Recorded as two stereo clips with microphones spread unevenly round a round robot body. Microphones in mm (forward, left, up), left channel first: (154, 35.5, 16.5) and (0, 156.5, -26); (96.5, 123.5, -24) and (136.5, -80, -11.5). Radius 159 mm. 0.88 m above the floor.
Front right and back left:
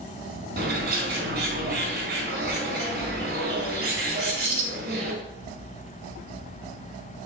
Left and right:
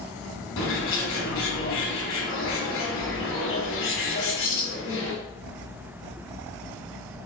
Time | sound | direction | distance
0.6 | a bird | 105° left | 1.5 m